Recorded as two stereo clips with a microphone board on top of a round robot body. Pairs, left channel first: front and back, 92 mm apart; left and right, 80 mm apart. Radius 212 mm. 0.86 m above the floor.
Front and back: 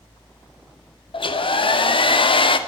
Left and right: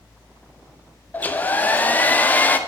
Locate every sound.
1.1 s a hair dryer: 20° left, 2 m